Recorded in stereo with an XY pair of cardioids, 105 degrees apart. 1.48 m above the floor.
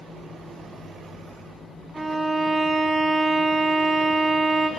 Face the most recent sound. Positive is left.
turn(degrees=-25)